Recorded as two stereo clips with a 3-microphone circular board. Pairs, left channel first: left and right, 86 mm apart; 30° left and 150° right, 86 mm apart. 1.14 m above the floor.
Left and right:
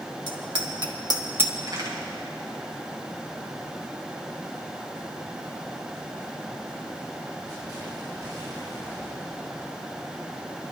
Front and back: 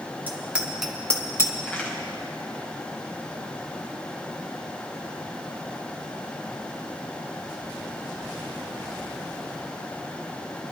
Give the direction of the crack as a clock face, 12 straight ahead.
2 o'clock.